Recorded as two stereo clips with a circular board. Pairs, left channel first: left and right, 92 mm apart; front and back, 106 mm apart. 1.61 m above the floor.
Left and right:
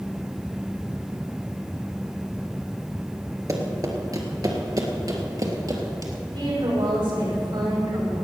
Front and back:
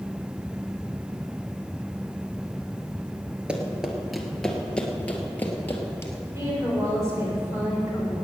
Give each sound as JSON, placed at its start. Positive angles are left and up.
{"t": 3.5, "sound": "running footsteps", "azimuth_deg": -105, "distance_m": 1.9}
{"t": 6.3, "sound": "a woman speaking", "azimuth_deg": -115, "distance_m": 6.0}